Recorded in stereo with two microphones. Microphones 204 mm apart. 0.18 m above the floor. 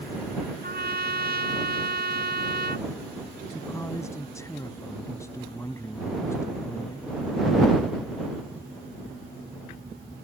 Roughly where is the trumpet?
Right.